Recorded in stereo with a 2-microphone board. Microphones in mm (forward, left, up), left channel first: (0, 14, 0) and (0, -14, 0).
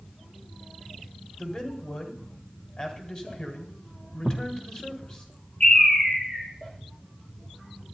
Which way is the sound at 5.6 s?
30° left (ahead or behind).